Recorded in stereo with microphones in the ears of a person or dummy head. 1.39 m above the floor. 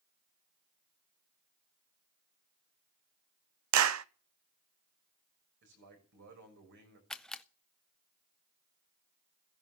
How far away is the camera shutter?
About 0.5 m.